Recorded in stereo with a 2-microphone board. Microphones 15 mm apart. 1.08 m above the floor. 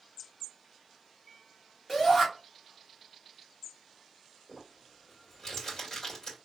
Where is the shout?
15° left (ahead or behind), 2.5 m.